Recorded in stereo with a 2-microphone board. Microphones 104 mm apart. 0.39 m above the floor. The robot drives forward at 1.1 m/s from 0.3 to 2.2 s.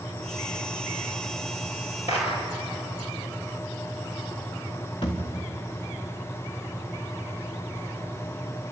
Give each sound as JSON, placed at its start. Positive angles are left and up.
{"t": 2.1, "sound": "a clap", "side_deg": 65, "distance_m": 9.0}
{"t": 5.0, "sound": "a thud", "side_deg": 55, "distance_m": 3.5}